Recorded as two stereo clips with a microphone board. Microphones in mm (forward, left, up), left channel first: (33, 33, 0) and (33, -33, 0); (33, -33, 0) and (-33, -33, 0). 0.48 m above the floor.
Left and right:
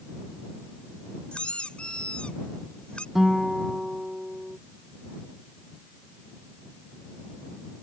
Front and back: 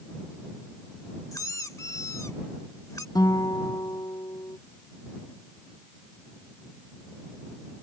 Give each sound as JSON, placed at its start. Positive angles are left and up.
{"t": 1.3, "sound": "a squeak", "azimuth_deg": 20}
{"t": 3.1, "sound": "a guitar", "azimuth_deg": -5}